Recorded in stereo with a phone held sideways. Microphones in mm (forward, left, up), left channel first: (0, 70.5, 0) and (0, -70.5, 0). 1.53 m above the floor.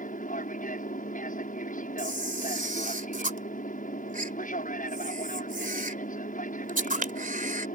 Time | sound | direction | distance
0.0 | an aircraft | 70° left (ahead or behind) | ?
2.0 | a camera shutter | 70° right (ahead or behind) | ?